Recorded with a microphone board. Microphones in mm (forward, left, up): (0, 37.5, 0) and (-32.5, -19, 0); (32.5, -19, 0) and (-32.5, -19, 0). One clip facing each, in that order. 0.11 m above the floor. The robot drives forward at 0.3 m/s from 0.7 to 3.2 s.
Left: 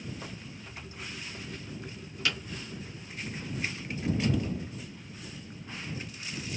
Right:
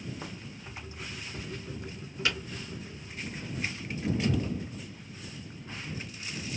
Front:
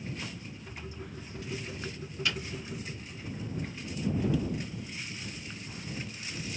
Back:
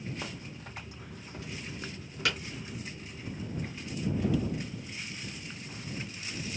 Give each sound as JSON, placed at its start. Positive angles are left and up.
{"t": 0.2, "sound": "a crack", "azimuth_deg": 175, "distance_m": 2.0}